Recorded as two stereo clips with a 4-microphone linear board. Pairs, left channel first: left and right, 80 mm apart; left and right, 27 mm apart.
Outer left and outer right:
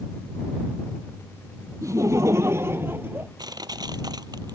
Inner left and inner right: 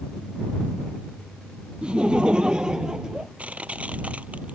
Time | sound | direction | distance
1.8 | laughter | 40° right (ahead or behind) | ?
3.4 | crushing | 55° right (ahead or behind) | ?